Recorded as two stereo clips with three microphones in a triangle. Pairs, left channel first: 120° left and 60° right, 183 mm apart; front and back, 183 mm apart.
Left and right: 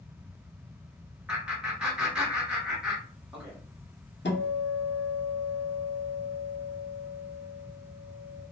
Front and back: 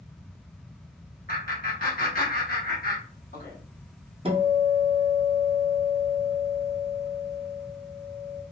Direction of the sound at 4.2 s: 120° left.